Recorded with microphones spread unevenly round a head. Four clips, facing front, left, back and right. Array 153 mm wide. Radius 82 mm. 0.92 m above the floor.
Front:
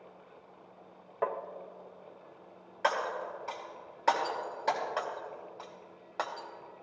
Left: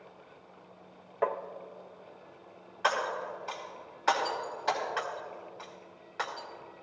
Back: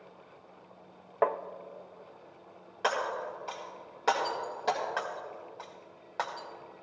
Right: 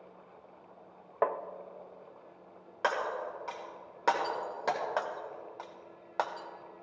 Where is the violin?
I don't hear a violin.